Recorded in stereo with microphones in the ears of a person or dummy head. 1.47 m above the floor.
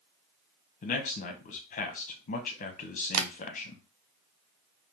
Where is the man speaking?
45° left (ahead or behind), 0.8 m.